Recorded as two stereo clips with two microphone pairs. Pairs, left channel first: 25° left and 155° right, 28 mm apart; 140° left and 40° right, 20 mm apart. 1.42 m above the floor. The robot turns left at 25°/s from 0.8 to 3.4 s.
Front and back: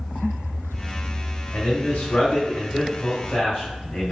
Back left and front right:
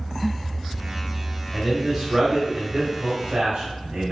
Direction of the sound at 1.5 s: 40° left.